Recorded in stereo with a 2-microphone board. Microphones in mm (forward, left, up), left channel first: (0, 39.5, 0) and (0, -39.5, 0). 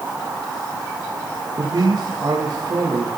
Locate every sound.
1.6 s a man speaking: 45° right (ahead or behind), 7 m